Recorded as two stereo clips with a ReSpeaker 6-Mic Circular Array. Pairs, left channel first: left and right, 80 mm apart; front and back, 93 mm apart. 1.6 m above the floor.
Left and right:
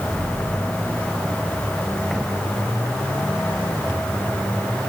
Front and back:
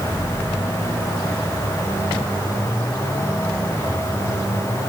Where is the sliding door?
No sliding door in this recording.